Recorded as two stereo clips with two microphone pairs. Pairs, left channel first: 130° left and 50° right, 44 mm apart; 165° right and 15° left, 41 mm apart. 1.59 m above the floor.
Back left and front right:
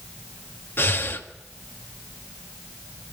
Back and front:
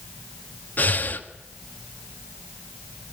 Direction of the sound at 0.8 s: 160° left.